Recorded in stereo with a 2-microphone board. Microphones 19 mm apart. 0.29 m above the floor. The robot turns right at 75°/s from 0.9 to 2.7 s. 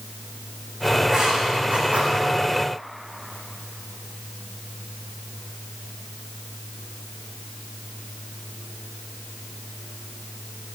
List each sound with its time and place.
1.0 s writing: 35° right (ahead or behind), 4 m; by 2.2 s 60° right (ahead or behind), 4 m